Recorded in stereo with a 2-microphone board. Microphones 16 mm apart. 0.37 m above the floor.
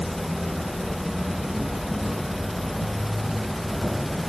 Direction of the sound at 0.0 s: 10° right (ahead or behind).